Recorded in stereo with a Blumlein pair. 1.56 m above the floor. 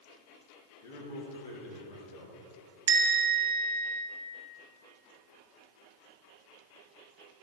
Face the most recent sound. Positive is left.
turn(degrees=-60)